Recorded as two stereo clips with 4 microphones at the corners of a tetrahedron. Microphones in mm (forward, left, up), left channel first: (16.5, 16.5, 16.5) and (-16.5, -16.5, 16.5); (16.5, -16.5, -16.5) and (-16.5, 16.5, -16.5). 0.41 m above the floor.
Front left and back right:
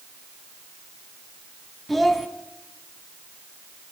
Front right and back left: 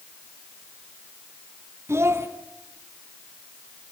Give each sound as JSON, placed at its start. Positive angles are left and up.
{"t": 1.9, "sound": "a child speaking", "azimuth_deg": 135, "distance_m": 3.0}